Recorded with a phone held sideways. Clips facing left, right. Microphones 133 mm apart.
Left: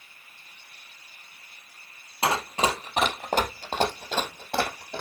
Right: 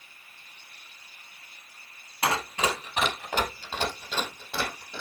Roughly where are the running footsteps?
Left.